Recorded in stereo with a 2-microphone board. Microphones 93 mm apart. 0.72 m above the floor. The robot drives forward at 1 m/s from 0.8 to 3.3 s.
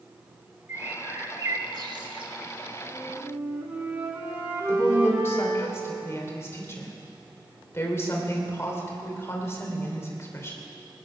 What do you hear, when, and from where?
0.7 s a bird: 30° right (ahead or behind), 1.9 m; by 2.3 s 55° right (ahead or behind), 1.1 m
2.8 s a flute: 25° right (ahead or behind), 2 m; by 5.7 s 20° right (ahead or behind), 2.5 m
4.7 s a woman speaking: 30° left (ahead or behind), 3 m